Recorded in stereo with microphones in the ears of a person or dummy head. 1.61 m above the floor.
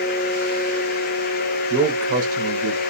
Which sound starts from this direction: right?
A man speaking, at 1.7 s.